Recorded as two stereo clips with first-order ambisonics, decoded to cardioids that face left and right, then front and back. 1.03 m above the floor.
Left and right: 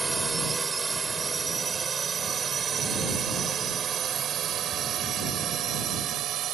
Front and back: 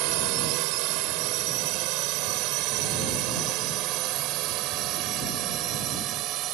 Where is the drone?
170° right; by 6.5 s 140° right.